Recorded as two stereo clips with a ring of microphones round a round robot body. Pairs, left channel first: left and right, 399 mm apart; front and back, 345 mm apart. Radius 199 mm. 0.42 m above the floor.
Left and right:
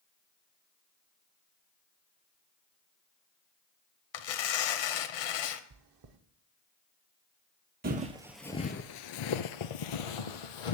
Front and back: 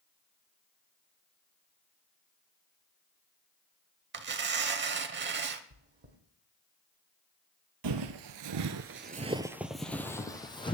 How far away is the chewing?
About 0.8 m.